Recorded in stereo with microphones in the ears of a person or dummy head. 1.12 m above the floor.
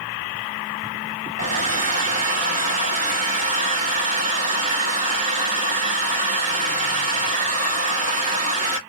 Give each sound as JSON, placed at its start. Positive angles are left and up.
{"t": 1.4, "sound": "a hair dryer", "side_deg": -40, "distance_m": 0.7}